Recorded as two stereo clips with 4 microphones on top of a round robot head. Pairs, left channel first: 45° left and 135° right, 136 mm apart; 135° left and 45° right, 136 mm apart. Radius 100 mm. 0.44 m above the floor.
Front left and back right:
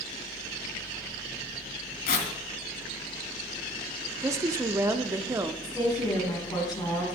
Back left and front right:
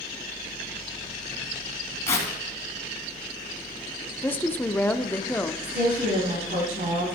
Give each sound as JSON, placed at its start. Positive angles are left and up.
{"t": 2.1, "sound": "tearing paper", "azimuth_deg": 60, "distance_m": 2.5}
{"t": 4.2, "sound": "a woman speaking", "azimuth_deg": -165, "distance_m": 0.8}
{"t": 5.6, "sound": "a woman speaking", "azimuth_deg": -15, "distance_m": 5.0}